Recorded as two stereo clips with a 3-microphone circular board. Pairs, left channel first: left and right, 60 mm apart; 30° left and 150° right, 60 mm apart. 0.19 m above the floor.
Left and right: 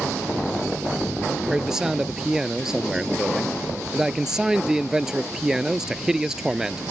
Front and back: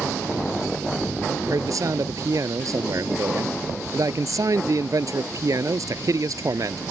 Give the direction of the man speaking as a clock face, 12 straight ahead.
6 o'clock.